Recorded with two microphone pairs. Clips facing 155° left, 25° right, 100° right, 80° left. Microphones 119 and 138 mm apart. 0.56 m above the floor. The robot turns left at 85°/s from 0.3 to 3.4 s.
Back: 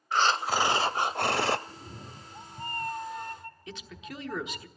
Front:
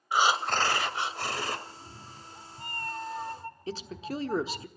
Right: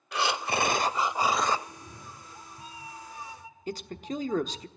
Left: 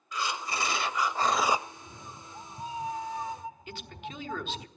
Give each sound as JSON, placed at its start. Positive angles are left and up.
{"t": 0.1, "sound": "breathing", "azimuth_deg": -100, "distance_m": 0.6}
{"t": 1.7, "sound": "a cat meowing", "azimuth_deg": -175, "distance_m": 0.5}
{"t": 3.7, "sound": "a man speaking", "azimuth_deg": -65, "distance_m": 1.0}